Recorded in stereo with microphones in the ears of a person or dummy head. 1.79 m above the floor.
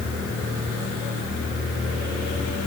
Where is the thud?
I don't hear a thud.